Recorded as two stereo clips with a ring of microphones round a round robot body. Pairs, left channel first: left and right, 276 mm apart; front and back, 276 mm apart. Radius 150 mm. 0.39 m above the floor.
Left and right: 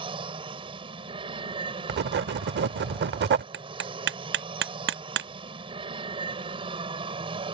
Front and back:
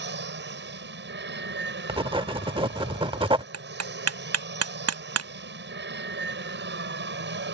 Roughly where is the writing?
Behind right.